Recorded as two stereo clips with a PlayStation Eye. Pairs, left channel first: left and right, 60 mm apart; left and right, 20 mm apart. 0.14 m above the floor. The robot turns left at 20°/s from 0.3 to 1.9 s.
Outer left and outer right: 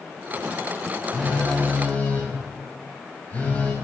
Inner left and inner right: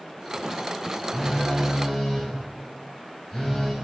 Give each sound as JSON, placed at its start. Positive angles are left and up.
{"t": 1.1, "sound": "a phone buzzing", "side_deg": 10, "distance_m": 1.5}